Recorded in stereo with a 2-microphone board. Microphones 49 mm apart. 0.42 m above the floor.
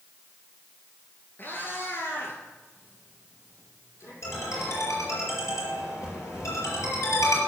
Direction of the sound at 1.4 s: 45° left (ahead or behind).